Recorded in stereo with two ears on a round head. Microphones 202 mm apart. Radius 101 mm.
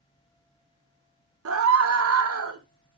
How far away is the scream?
About 2.5 m.